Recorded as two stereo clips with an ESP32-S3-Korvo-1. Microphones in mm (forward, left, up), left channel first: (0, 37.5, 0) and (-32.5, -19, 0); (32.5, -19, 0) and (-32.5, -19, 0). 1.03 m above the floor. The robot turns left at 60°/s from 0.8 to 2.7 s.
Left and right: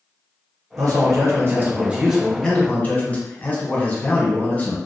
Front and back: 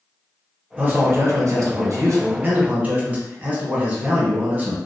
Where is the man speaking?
120° right, 0.9 m; by 4.8 s 125° left, 0.9 m.